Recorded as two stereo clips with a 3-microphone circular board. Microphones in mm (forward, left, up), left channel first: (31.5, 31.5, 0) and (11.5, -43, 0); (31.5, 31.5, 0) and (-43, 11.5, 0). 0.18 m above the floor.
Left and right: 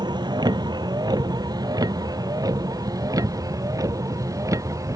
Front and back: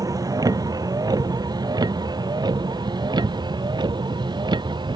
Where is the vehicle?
125° right; by 5.0 s 150° right.